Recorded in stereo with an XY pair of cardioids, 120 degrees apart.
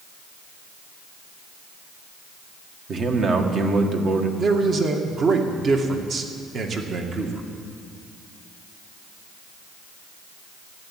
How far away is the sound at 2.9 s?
About 2.0 m.